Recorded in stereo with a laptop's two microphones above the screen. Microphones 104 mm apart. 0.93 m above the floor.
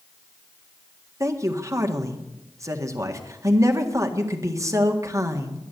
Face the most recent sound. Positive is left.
turn(degrees=-30)  # may be behind; listen again after turning